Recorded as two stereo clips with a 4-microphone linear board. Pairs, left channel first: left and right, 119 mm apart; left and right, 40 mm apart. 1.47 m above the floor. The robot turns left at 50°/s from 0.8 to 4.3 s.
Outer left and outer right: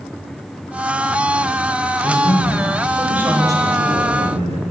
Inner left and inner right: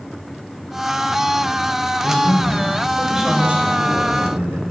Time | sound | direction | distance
2.0 | a man speaking | 45° left | 6 m